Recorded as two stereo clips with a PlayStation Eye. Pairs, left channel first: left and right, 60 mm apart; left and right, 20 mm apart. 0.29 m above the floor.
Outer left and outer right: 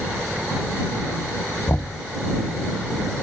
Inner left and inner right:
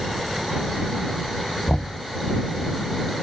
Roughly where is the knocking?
Left.